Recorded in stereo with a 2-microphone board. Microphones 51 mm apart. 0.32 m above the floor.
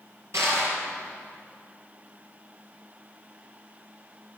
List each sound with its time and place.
0.3 s crushing: 75° right (ahead or behind), 4 m